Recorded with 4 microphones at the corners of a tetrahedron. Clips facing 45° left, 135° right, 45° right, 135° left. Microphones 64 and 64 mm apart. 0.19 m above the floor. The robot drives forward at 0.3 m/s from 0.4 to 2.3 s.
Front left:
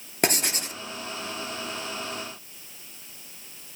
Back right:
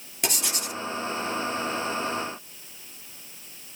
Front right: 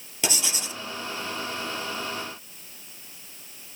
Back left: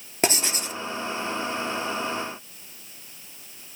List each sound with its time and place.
0.2 s writing: 85° left, 1.0 m; by 0.8 s 95° left, 1.0 m